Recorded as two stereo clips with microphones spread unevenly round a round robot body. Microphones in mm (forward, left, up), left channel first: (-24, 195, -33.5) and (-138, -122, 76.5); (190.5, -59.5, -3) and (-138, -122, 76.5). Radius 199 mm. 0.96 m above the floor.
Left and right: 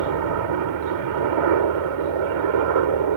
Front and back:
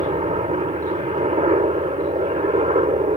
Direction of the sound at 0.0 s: 100° right.